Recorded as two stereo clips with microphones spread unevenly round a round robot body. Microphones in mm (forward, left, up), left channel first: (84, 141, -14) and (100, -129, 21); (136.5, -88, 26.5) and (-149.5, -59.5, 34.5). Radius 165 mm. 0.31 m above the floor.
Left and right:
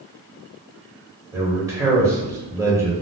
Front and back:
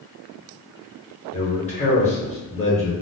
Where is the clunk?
I don't hear a clunk.